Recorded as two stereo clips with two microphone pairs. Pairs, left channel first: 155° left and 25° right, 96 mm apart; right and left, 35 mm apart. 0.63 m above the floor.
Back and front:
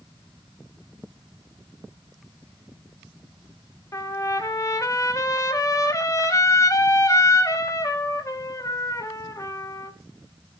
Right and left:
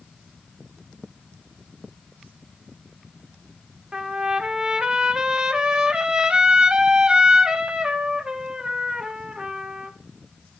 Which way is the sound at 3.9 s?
130° left.